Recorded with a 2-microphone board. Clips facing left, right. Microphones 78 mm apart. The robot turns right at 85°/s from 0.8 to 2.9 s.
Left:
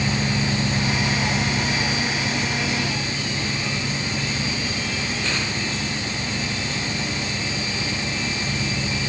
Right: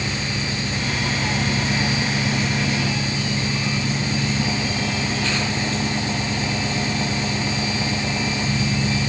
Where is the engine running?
130° left; by 9.1 s 55° right.